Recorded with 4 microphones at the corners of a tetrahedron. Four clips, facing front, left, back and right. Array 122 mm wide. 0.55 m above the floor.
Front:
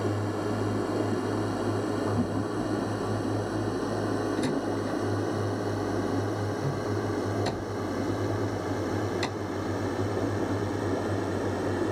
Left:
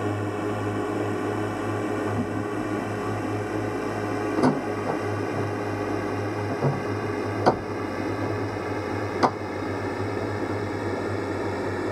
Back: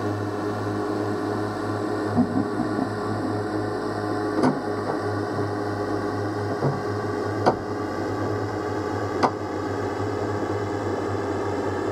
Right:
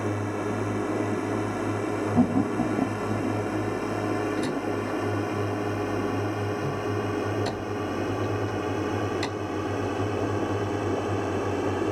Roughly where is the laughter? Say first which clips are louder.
Right 5 dB, back 6 dB; behind right.